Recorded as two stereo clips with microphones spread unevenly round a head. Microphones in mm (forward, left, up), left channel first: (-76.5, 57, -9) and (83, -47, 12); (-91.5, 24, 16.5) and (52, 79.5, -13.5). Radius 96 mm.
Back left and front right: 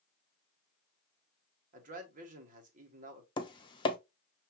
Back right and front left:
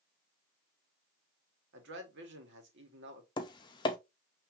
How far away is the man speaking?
About 1.6 m.